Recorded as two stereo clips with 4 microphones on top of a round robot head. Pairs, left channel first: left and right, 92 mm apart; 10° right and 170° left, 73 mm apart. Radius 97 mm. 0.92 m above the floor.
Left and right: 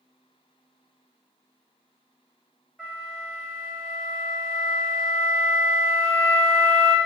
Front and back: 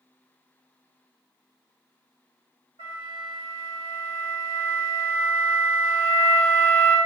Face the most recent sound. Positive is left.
turn(degrees=-175)